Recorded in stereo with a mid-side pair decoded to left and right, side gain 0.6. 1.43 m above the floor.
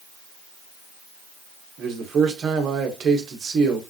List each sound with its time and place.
1.8 s a man speaking: 40° right, 1.6 m